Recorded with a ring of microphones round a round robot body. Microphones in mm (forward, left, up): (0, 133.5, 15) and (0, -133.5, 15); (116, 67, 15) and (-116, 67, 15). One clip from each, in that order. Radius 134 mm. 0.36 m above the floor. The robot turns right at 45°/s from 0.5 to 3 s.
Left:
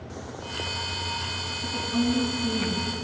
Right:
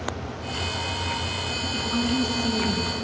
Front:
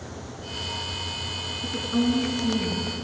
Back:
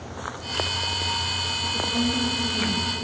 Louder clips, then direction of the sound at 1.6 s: Left 1 dB, back 2 dB; 65° right.